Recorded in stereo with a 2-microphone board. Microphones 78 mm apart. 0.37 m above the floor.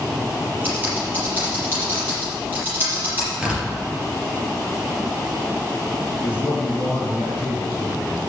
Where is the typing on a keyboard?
25° right (ahead or behind), 5.5 m.